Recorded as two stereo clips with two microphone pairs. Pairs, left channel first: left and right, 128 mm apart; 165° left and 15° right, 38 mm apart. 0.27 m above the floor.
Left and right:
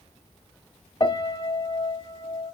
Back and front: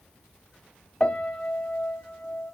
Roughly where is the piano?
Behind left.